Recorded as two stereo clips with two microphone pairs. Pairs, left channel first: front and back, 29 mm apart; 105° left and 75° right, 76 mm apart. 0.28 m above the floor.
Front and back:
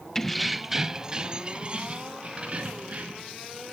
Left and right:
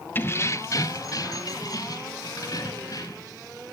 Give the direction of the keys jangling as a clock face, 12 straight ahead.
10 o'clock.